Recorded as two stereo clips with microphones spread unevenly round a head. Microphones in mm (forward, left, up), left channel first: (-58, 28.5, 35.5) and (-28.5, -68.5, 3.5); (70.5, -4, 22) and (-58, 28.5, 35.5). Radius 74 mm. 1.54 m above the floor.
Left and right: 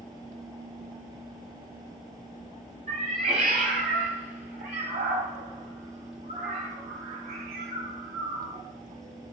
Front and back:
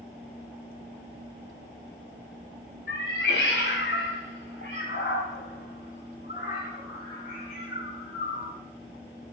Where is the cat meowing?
15° right, 2.0 m; by 8.5 s 60° right, 5 m.